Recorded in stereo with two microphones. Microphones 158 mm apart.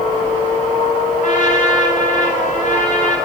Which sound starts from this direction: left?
A trumpet, at 1.2 s.